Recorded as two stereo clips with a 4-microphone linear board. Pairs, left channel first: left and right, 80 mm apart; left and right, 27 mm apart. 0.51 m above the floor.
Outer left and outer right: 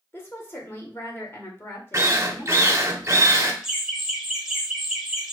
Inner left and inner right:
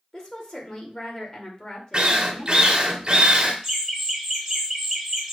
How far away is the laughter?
About 1.7 m.